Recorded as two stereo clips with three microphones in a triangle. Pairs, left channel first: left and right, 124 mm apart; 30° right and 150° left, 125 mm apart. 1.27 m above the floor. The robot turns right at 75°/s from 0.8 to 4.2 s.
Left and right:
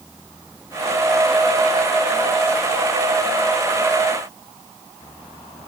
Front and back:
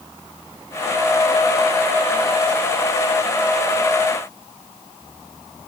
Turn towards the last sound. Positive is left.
No sound to turn to.